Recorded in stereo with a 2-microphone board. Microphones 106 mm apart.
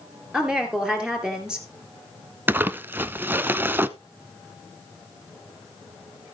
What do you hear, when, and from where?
0.3 s a woman speaking: 5° right (ahead or behind), 3 m
2.5 s crumpling: 20° right (ahead or behind), 0.5 m